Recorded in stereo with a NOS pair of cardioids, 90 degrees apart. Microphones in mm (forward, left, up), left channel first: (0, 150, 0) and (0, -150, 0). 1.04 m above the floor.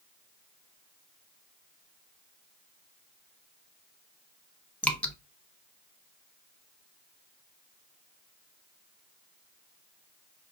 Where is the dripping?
5° left, 0.8 m.